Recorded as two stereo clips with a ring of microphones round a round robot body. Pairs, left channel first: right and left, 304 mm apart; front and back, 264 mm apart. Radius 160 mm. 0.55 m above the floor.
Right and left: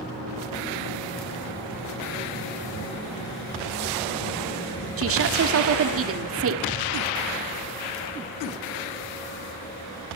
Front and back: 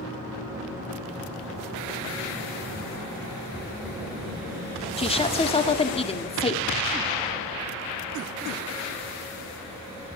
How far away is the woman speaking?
About 1.7 m.